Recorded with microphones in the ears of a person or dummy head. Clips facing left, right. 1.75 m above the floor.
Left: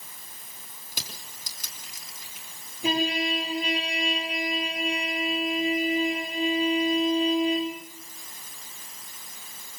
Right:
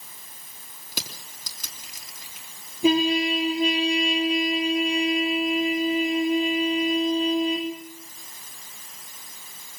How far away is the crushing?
About 3.5 m.